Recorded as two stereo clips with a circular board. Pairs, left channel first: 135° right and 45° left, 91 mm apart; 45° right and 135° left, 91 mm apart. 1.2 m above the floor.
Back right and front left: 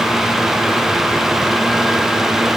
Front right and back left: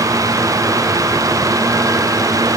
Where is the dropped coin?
I don't hear a dropped coin.